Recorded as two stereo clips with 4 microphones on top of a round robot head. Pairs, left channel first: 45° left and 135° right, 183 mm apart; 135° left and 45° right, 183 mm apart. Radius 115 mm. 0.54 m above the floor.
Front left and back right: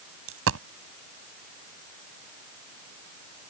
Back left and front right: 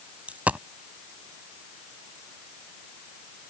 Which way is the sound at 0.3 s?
125° right.